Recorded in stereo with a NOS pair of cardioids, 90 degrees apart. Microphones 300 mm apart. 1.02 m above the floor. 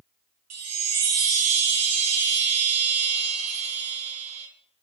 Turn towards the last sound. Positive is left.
turn(degrees=-55)